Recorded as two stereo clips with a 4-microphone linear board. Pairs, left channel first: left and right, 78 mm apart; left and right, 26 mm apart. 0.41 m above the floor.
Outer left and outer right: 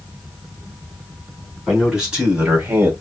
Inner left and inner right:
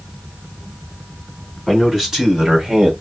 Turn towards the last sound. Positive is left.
turn(degrees=-30)  # may be behind; listen again after turning